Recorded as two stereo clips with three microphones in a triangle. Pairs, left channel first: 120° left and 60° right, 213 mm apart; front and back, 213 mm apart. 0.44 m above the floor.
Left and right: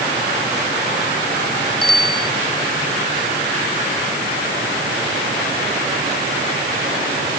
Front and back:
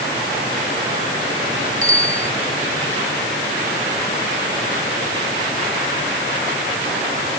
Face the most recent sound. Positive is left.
turn(degrees=165)